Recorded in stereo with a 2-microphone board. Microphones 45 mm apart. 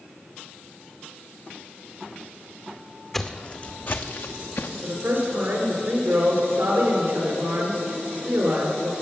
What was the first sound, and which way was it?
Footsteps, 5° left (ahead or behind).